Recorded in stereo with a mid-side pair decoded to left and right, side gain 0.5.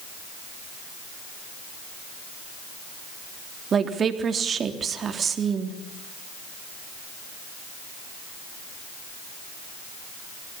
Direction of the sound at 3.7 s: 45° right.